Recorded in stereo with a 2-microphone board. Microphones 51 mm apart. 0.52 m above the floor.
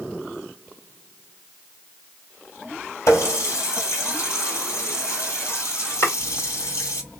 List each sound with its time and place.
3.1 s a running tap: 70° left (ahead or behind), 2 m
6.0 s chopping: 55° left (ahead or behind), 2.5 m